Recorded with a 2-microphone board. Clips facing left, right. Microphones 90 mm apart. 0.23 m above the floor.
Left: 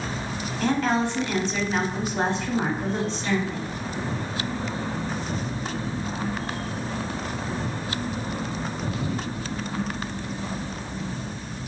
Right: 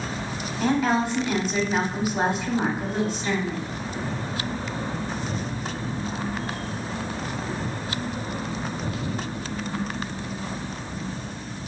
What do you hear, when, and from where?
0.6 s a woman speaking: 10° right (ahead or behind), 1.2 m